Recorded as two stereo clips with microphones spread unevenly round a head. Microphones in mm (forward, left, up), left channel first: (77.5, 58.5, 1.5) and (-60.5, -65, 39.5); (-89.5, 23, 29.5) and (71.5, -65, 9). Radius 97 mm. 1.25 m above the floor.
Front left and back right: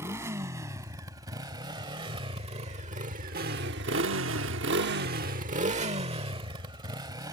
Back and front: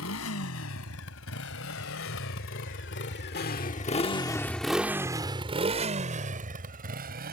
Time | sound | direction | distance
0.0 | a motorcycle | 145° left | ?